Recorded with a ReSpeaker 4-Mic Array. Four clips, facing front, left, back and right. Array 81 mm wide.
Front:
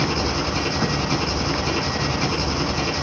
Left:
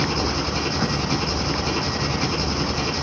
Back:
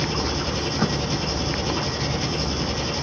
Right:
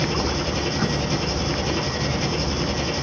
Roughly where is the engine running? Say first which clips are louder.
Even, front 3 dB; ahead left.